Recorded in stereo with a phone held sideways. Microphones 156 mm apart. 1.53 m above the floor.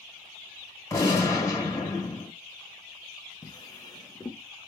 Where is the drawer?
25° left (ahead or behind), 0.8 m.